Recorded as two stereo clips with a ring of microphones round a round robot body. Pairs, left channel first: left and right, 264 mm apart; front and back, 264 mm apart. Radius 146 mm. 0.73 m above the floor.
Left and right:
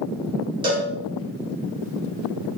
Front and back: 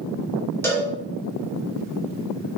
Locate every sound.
0.6 s a cowbell: 65° right, 1.1 m